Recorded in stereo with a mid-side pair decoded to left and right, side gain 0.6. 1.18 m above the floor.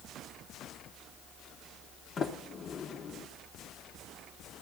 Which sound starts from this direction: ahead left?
A sliding door, at 2.2 s.